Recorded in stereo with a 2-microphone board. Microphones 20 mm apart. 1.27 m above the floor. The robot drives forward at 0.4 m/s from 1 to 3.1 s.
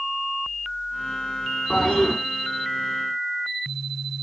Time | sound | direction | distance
1.7 | a toilet flushing | 70° left (ahead or behind) | 1.6 m